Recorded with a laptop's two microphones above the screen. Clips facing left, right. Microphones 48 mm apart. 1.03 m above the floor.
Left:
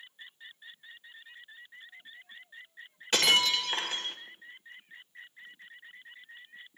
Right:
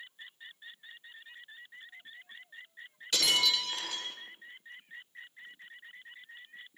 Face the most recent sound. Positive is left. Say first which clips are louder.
# left 4 dB
turn(degrees=40)  # may be behind; listen again after turning